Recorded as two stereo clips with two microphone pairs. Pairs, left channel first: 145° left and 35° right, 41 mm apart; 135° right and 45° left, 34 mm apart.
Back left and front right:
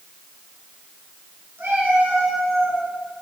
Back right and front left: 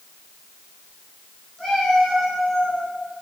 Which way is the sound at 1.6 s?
55° right.